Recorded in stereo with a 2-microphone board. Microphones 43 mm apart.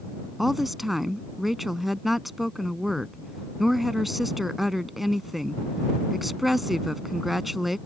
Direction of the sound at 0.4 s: 5° right (ahead or behind).